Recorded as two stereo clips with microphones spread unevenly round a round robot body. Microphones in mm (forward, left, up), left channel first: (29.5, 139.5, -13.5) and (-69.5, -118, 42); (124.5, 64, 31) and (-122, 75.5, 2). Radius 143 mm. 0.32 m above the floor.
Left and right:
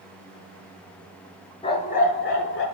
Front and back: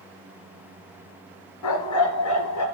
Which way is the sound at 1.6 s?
Straight ahead.